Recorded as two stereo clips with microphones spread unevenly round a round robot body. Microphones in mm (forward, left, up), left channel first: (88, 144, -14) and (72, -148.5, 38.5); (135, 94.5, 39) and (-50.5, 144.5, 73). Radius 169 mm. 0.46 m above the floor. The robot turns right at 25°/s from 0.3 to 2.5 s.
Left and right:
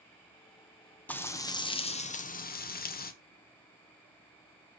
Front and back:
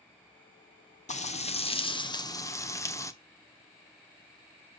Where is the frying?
10° left, 1.1 m; by 3.1 s 45° left, 1.1 m.